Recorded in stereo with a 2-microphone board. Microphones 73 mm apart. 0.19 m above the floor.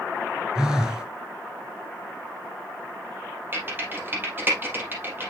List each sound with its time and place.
0.6 s a phone buzzing: 10° right (ahead or behind), 1.8 m
3.5 s typing on a keyboard: 30° right (ahead or behind), 3.5 m